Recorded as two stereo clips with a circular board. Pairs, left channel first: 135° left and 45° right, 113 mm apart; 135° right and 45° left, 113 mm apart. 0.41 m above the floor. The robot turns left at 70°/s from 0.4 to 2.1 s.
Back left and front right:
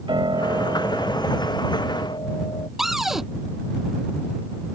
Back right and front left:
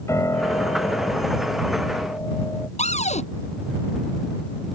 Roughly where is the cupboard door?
Behind right.